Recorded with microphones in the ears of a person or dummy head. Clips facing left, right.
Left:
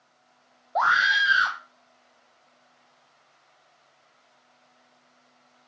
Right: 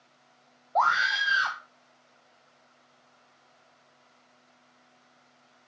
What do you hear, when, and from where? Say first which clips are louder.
0.8 s a scream: even; 15° left (ahead or behind), 0.7 m